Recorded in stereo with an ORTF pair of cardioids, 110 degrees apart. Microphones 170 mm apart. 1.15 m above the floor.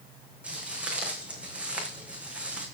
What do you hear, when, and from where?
0.4 s footsteps: 5° right, 3.5 m